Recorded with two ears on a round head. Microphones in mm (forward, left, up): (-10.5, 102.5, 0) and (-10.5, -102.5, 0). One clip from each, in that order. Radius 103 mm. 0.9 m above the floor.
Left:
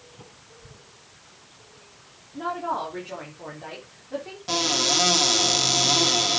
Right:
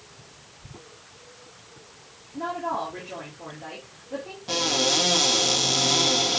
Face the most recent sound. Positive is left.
turn(degrees=25)  # may be behind; listen again after turning